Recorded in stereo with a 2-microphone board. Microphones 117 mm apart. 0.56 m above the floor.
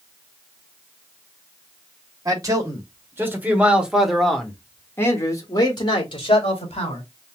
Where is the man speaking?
35° right (ahead or behind), 2.5 m; by 7.0 s 60° left (ahead or behind), 2.5 m.